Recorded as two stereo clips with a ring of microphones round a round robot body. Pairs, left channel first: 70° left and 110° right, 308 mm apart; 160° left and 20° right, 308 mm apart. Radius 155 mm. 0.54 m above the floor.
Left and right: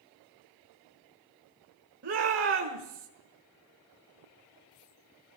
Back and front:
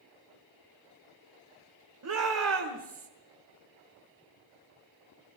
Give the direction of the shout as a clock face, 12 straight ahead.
2 o'clock.